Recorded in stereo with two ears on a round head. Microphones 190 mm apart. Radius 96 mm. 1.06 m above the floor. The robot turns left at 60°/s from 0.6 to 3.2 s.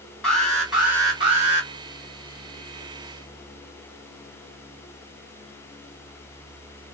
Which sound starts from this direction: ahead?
An alarm, at 0.2 s.